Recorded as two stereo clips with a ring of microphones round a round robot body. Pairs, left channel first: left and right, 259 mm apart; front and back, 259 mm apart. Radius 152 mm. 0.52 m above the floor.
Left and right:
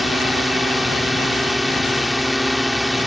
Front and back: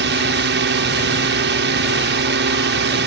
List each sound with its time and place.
0.0 s a drone: straight behind